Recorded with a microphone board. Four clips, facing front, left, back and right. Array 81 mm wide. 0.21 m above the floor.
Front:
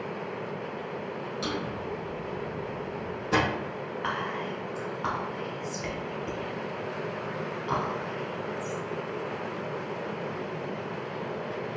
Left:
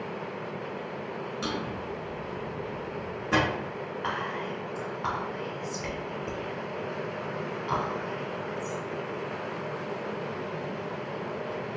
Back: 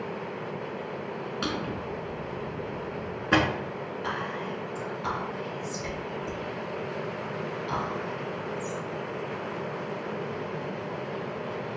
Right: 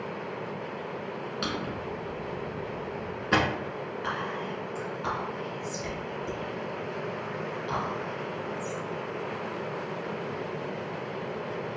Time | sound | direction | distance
1.4 | a drawer | 160° right | 0.9 m
4.0 | whispering | 40° left | 1.2 m